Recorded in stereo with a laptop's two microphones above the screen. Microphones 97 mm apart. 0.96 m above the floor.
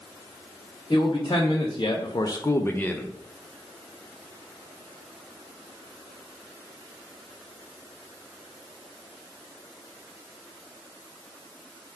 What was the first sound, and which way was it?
A man speaking, 45° left (ahead or behind).